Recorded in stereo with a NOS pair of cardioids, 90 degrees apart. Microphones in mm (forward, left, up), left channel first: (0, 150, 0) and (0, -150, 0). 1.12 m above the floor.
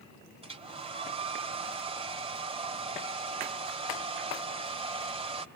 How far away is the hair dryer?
About 2 m.